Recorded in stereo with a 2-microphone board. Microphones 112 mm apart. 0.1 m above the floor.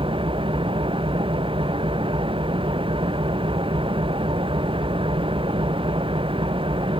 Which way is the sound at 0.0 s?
50° right (ahead or behind).